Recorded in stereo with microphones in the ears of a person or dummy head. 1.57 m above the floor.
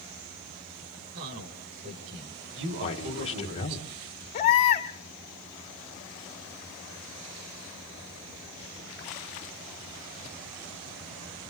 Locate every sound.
1.1 s a man speaking: 60° right (ahead or behind), 6.5 m
2.8 s a man speaking: 30° left (ahead or behind), 2 m
4.3 s a baby crying: 30° left (ahead or behind), 1.4 m